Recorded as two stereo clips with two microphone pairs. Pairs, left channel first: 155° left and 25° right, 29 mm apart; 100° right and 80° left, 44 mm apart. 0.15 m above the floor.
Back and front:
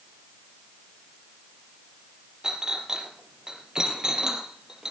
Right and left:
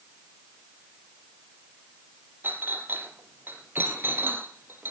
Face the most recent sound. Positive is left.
turn(degrees=40)